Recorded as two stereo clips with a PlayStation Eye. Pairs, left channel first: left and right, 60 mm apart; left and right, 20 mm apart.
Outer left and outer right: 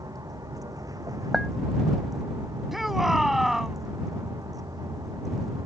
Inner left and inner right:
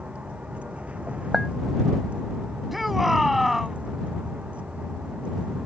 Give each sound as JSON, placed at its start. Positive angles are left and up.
{"t": 0.0, "sound": "a vehicle", "side_deg": -80}
{"t": 1.3, "sound": "a clink", "side_deg": 0}
{"t": 2.7, "sound": "a shout", "side_deg": 0}